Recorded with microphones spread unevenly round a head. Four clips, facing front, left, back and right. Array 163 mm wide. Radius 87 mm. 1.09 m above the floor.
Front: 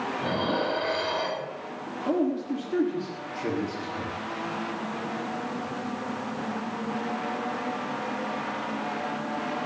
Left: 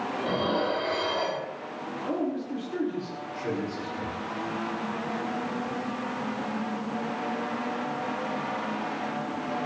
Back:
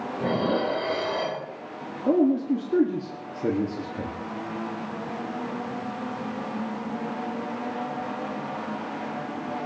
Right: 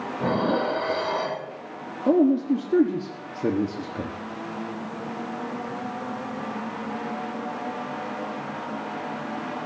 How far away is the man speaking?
About 2.0 m.